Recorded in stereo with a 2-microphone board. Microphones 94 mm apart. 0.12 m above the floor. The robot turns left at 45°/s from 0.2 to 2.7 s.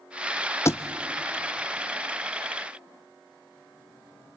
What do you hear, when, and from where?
0.7 s a thud: 30° left (ahead or behind), 0.9 m; by 0.8 s 25° left (ahead or behind), 0.9 m